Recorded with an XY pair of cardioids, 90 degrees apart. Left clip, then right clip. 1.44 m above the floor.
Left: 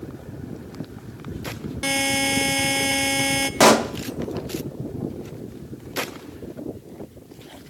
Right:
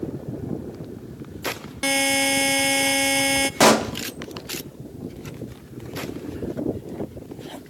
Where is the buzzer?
20° right, 0.5 m.